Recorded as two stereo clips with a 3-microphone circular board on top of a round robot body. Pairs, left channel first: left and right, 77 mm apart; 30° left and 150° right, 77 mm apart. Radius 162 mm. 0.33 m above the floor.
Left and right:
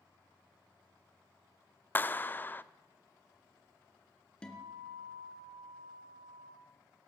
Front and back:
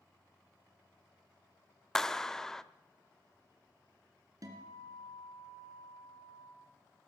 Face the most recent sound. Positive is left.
turn(degrees=170)